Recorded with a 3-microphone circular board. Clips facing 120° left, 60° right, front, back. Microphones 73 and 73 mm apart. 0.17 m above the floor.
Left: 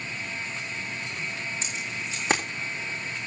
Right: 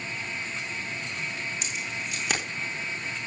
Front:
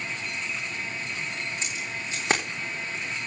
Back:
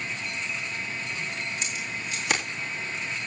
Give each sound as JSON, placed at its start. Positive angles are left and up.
{"t": 1.6, "sound": "keys jangling", "azimuth_deg": 60, "distance_m": 7.5}